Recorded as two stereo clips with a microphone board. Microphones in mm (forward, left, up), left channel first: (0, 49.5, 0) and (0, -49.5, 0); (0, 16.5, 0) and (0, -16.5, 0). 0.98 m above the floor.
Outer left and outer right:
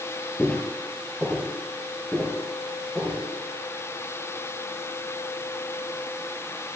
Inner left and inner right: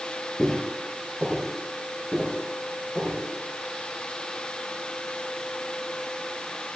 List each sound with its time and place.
0.4 s footsteps: 15° left (ahead or behind), 1.1 m; by 3.2 s 5° left (ahead or behind), 2.5 m